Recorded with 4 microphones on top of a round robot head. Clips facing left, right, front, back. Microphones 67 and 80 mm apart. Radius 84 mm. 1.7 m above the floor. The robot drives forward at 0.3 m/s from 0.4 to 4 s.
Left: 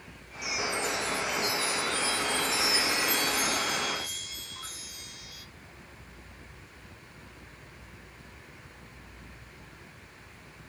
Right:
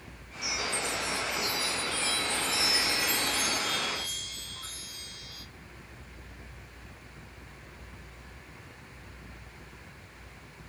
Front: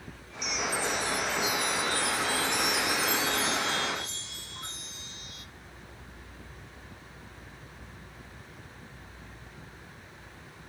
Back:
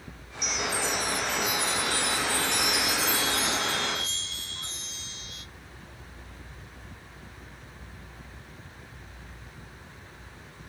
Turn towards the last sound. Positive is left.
turn(degrees=170)